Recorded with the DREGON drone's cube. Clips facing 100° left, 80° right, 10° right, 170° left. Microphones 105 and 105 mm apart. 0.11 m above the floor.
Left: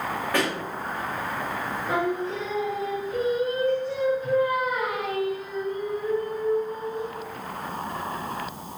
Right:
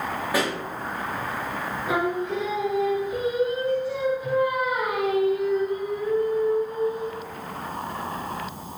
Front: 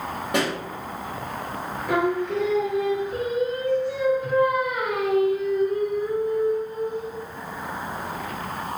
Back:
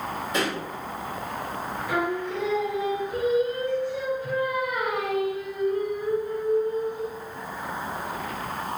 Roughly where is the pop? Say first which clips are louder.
Right 1 dB, front 3 dB; ahead.